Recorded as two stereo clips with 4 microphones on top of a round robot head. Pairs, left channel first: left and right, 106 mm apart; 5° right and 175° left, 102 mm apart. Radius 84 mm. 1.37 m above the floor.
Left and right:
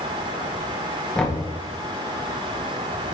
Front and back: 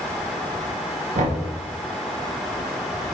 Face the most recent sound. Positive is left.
turn(degrees=175)